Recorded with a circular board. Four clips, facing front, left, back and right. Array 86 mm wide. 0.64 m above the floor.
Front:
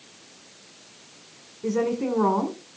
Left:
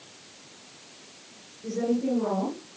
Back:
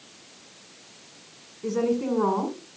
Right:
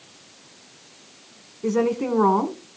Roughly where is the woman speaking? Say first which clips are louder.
Right 5 dB, even; right.